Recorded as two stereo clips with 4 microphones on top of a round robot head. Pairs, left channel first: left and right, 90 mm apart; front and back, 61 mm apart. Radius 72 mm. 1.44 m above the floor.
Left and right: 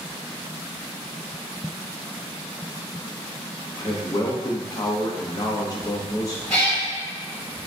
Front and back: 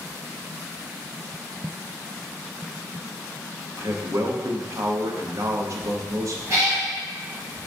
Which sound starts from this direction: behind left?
A man speaking, at 3.8 s.